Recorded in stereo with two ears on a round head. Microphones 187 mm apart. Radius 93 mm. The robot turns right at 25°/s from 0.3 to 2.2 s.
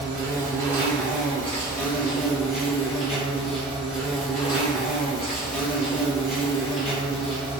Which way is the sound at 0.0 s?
20° right.